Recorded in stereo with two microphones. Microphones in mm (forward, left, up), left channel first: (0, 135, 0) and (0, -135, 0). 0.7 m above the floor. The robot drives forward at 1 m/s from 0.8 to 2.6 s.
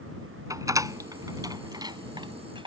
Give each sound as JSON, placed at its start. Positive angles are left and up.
{"t": 0.5, "sound": "a door slam", "side_deg": -10}